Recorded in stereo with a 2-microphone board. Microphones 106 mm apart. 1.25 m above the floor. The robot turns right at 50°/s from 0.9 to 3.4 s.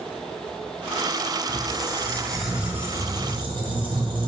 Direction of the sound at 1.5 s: 135° left.